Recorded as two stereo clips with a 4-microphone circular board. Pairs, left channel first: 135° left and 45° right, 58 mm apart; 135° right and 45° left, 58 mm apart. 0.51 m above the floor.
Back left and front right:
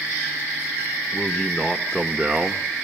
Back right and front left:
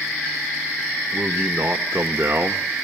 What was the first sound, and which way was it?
A man speaking, 75° left.